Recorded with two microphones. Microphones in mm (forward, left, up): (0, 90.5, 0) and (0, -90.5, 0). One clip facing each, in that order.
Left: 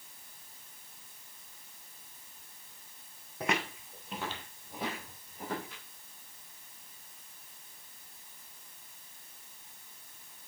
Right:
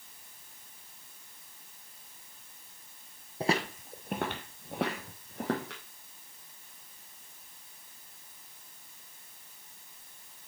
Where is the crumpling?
I don't hear crumpling.